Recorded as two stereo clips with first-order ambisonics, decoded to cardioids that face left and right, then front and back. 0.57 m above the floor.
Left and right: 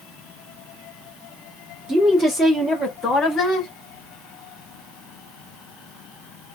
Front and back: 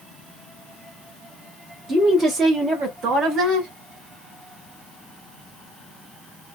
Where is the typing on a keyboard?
I don't hear typing on a keyboard.